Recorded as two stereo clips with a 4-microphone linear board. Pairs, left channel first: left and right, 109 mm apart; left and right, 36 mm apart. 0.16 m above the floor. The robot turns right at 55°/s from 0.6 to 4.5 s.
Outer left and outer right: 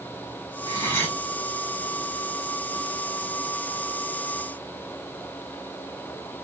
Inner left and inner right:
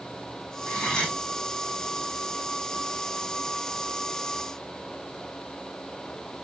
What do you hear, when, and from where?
0.7 s cutlery clinking: 35° left (ahead or behind), 5 m; by 1.2 s 10° left (ahead or behind), 5 m